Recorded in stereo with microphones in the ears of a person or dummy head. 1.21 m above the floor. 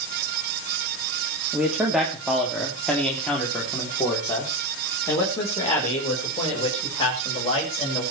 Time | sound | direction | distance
1.5 | a man speaking | 10° right (ahead or behind) | 2.5 m